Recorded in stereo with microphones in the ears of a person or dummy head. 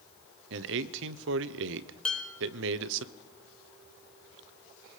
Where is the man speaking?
70° right (ahead or behind), 0.9 m.